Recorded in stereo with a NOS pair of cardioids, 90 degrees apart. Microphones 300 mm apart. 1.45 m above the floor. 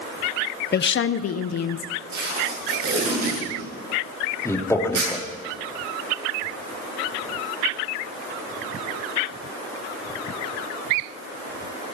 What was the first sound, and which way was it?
A woman speaking, 35° left.